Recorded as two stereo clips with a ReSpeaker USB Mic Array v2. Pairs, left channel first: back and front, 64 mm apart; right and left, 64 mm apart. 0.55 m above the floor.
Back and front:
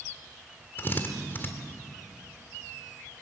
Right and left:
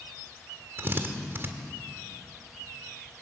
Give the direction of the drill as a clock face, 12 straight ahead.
8 o'clock.